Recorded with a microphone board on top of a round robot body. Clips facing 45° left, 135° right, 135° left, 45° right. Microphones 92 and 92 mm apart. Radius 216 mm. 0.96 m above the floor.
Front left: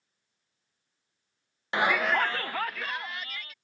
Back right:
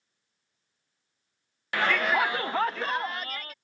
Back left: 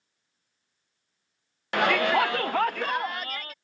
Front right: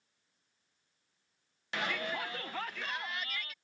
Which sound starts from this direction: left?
A shout, at 1.7 s.